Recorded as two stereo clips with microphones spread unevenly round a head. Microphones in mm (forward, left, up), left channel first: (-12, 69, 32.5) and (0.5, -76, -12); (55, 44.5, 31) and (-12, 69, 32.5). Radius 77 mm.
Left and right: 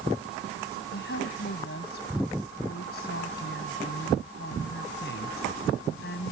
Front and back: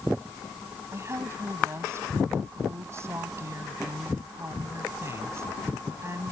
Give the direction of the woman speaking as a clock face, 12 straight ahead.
8 o'clock.